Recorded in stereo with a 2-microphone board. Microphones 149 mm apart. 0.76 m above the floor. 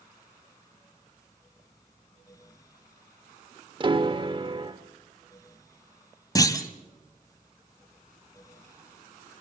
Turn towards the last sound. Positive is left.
turn(degrees=25)  # may be behind; listen again after turning